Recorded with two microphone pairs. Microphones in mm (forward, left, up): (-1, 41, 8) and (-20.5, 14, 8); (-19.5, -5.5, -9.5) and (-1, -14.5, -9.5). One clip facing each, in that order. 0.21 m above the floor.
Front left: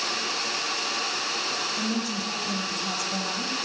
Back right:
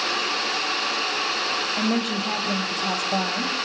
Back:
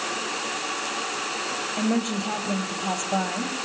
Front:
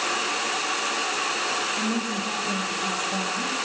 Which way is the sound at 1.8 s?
165° right.